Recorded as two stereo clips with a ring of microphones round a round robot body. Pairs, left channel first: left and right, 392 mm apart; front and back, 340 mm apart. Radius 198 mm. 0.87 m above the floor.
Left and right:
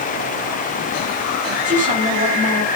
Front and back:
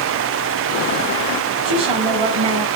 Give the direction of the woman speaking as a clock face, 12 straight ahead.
5 o'clock.